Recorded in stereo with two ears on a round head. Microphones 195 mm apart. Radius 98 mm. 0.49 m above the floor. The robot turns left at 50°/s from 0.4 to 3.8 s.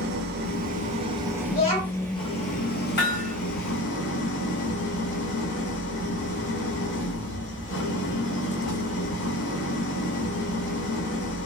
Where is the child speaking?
60° left, 1.4 m; by 2.1 s 30° left, 1.4 m.